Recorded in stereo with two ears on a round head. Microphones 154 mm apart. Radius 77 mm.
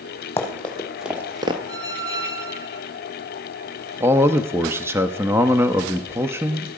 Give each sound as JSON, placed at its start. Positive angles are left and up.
{"t": 0.4, "sound": "running footsteps", "side_deg": 10, "distance_m": 1.8}
{"t": 1.7, "sound": "a squeak", "side_deg": -20, "distance_m": 1.4}
{"t": 4.0, "sound": "a man speaking", "side_deg": -15, "distance_m": 0.6}